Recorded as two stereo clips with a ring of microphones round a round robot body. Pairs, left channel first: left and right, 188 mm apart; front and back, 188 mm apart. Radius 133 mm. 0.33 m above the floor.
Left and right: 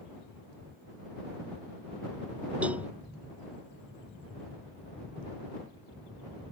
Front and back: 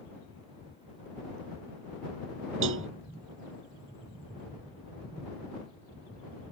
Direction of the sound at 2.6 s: 175° right.